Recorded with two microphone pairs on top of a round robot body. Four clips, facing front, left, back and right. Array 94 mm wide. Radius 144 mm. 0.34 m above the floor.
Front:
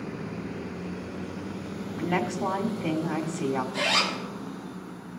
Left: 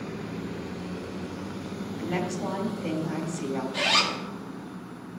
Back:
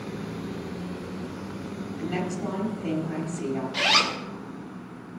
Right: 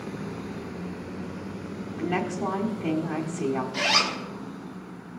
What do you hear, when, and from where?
2.0 s a woman speaking: 45° right, 1.7 m
3.7 s a zipper: 170° right, 1.8 m